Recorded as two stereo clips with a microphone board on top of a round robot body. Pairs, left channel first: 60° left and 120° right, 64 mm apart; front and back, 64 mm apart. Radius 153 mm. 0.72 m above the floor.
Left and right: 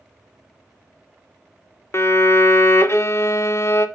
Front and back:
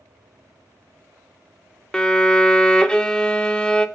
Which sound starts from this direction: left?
A violin, at 1.9 s.